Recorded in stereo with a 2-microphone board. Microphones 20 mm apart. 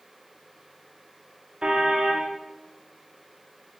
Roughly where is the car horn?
Right.